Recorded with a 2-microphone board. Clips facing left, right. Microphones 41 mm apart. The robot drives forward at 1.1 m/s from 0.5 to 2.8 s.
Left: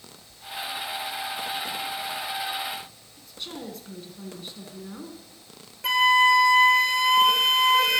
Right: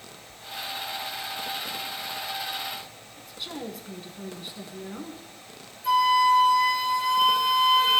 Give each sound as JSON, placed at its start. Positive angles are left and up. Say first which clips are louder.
{"t": 3.2, "sound": "a woman speaking", "louder": "right 1 dB", "side_deg": -5, "distance_m": 1.3}
{"t": 5.8, "sound": "a flute", "louder": "left 1 dB", "side_deg": 65, "distance_m": 1.0}